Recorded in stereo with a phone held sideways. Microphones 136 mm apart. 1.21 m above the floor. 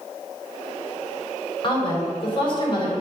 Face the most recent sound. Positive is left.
turn(degrees=40)  # may be behind; listen again after turning